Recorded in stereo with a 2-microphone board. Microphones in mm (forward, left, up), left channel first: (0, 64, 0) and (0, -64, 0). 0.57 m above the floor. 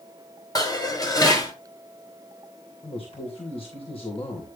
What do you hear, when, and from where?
0.6 s dishes clattering: 30° left (ahead or behind), 2 m
2.8 s a man speaking: 45° left (ahead or behind), 3 m